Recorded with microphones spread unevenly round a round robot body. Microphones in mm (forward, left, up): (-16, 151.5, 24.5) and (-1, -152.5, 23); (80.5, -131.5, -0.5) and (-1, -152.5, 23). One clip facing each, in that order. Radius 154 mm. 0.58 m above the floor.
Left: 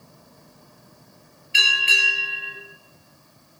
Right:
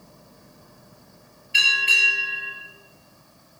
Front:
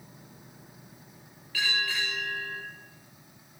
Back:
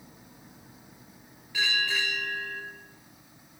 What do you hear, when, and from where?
1.5 s a bell: 110° left, 5.5 m